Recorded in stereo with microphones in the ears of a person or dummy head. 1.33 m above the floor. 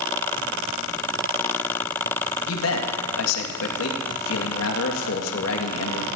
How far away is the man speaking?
About 2 m.